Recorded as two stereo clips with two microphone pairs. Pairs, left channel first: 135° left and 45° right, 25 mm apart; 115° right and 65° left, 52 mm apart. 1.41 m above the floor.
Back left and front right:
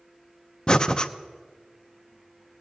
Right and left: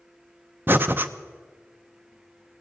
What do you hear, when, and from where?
0.7 s breathing: 90° left, 0.6 m